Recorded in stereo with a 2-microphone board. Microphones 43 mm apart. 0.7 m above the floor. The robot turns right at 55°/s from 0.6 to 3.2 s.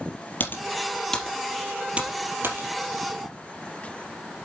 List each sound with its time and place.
0.4 s typing on a keyboard: 45° left (ahead or behind), 3.5 m; by 3.3 s 80° right, 3.5 m